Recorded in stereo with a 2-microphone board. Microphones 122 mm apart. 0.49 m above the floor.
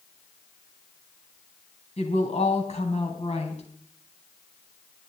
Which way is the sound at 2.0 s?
60° left (ahead or behind).